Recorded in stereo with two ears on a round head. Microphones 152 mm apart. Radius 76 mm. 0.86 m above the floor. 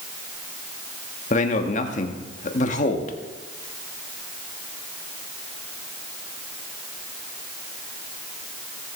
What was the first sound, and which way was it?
A man speaking, 45° left (ahead or behind).